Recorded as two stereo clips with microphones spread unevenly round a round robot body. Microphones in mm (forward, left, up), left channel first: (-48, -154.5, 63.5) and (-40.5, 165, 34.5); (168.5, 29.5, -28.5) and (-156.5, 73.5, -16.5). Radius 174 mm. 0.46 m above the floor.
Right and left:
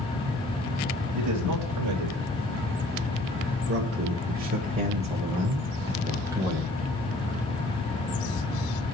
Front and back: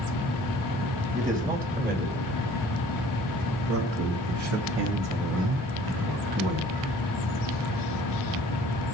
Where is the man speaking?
100° left, 2.5 m; by 6.8 s 170° left, 3 m.